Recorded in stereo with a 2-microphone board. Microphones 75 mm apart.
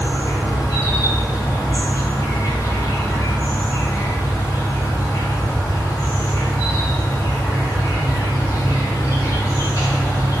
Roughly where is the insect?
Left.